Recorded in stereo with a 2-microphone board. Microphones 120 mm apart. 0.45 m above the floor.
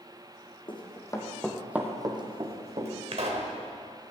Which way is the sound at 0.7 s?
40° left (ahead or behind).